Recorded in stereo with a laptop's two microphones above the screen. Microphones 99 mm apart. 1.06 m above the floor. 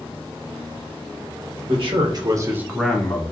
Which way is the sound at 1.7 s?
60° right (ahead or behind).